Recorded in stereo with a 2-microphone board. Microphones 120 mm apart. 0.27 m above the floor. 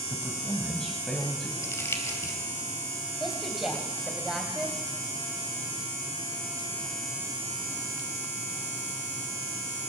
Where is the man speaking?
5° left (ahead or behind), 1.4 m.